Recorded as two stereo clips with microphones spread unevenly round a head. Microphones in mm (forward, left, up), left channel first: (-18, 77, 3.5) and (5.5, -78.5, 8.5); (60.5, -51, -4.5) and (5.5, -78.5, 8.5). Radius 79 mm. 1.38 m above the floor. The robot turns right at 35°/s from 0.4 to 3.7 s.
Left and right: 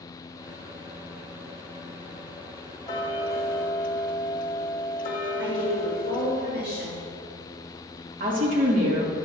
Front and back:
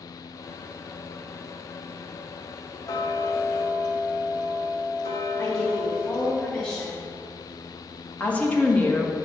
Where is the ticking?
30° left, 0.7 m; by 6.4 s 60° left, 0.7 m.